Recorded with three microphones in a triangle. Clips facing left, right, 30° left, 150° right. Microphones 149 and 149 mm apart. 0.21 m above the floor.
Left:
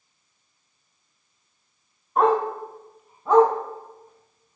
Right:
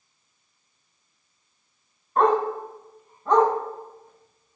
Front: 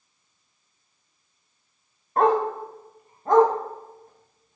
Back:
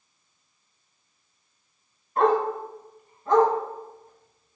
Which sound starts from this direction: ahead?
A dog barking, at 2.2 s.